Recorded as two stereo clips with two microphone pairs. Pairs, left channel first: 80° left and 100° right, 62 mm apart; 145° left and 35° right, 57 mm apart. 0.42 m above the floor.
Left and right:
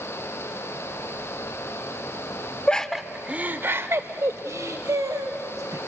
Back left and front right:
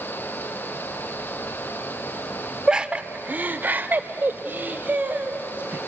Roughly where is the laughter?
Ahead.